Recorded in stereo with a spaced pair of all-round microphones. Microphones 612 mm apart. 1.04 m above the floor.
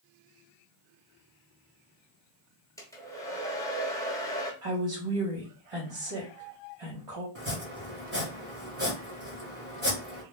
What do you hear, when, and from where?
2.8 s a hair dryer: 5° left (ahead or behind), 0.7 m
4.6 s a woman speaking: 50° right (ahead or behind), 0.9 m
7.3 s chopping: 15° right (ahead or behind), 1.2 m